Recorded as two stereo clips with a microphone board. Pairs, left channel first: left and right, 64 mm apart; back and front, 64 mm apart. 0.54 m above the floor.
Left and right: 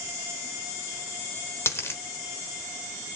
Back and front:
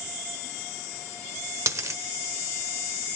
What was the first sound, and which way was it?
A dropped coin, 40° left.